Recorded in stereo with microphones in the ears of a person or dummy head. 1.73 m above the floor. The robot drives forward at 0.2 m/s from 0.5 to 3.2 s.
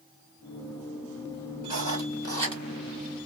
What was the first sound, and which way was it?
Writing, 20° right (ahead or behind).